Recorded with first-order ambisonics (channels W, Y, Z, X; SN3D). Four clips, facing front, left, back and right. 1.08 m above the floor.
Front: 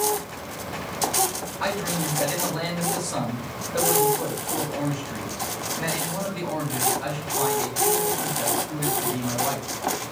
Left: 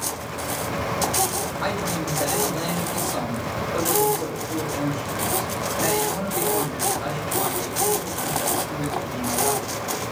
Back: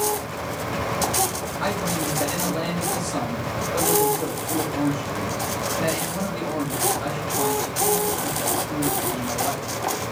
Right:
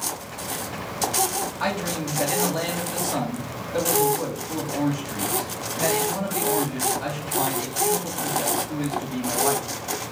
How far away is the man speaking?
About 2.5 m.